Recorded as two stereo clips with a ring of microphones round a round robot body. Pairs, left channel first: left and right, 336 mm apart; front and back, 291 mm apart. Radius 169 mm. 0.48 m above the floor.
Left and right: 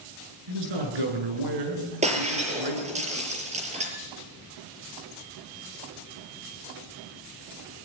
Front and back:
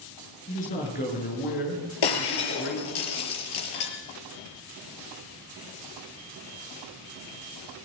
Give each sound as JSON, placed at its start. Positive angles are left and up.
{"t": 0.5, "sound": "a man speaking", "azimuth_deg": -70, "distance_m": 9.0}
{"t": 2.0, "sound": "breaking glass", "azimuth_deg": -15, "distance_m": 5.5}